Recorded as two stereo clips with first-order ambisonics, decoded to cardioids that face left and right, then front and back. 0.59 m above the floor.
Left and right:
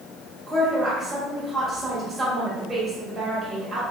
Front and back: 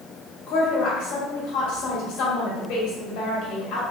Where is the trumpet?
No trumpet in this recording.